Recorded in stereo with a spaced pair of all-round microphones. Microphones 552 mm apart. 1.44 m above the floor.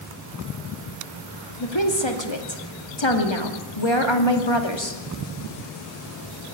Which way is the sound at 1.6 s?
45° left (ahead or behind).